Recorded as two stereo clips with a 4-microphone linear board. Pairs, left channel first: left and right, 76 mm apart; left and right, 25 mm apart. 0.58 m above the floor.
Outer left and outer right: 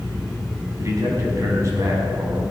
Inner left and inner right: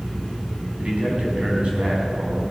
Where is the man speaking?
40° right (ahead or behind), 4.5 m.